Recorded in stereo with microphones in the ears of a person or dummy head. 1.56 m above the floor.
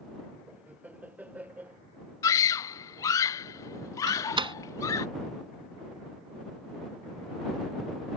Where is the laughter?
10° right (ahead or behind).